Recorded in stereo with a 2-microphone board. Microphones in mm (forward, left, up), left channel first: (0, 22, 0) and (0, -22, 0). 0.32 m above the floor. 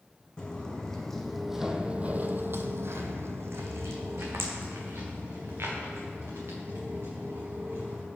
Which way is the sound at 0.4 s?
20° left (ahead or behind).